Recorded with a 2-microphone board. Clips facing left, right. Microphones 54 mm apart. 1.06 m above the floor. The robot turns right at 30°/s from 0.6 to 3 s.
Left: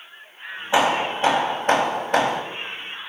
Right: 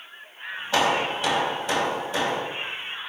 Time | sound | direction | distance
0.7 | hammering | 25° left | 3 m